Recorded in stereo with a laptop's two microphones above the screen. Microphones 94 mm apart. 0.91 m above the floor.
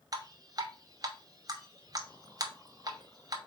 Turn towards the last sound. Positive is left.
turn(degrees=-40)  # may be behind; listen again after turning